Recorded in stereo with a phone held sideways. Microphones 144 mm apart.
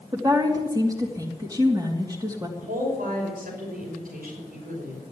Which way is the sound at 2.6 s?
85° right.